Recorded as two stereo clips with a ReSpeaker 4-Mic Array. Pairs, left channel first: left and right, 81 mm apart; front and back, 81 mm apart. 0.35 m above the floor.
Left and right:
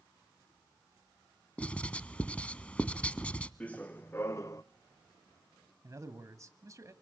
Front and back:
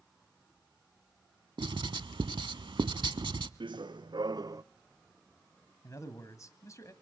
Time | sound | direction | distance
1.6 | writing | 165° left | 0.6 m
3.6 | running footsteps | 165° left | 1.3 m
5.8 | a man speaking | 45° right | 1.8 m